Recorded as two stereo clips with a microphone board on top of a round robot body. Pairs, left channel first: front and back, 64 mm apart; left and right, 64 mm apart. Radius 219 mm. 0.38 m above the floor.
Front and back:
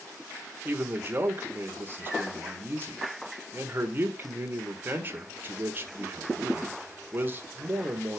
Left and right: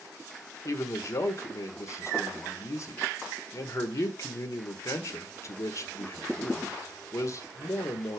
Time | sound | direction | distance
0.7 | a man speaking | 125° left | 1.8 m